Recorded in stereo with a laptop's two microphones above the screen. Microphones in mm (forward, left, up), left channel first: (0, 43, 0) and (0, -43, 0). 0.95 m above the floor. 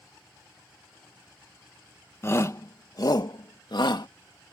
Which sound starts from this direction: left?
A shout, at 2.2 s.